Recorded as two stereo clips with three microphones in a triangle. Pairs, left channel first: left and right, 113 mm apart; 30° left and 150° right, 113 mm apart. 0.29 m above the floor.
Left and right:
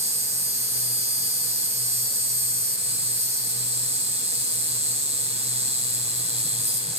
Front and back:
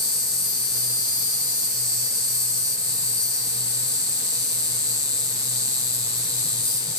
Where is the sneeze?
No sneeze in this recording.